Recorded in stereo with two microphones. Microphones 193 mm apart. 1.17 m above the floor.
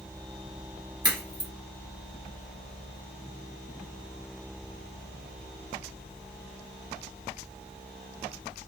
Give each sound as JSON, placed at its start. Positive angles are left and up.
{"t": 1.0, "sound": "a crack", "side_deg": -25, "distance_m": 2.0}